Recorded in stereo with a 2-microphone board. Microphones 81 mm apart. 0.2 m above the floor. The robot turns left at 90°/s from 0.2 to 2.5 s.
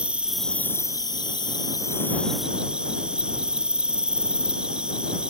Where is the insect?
165° right; by 5.3 s 10° right.